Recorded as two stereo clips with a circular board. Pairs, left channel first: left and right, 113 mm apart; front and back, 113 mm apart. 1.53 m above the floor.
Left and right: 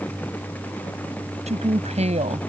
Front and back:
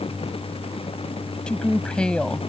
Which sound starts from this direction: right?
A woman speaking, at 1.5 s.